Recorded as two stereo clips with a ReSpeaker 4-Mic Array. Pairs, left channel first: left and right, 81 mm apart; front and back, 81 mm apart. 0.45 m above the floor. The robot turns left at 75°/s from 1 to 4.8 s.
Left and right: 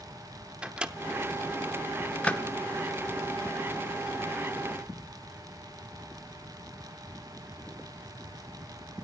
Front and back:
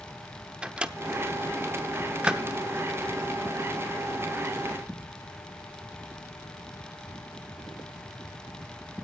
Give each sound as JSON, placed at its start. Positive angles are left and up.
{"t": 0.6, "sound": "a microwave", "azimuth_deg": -135, "distance_m": 0.7}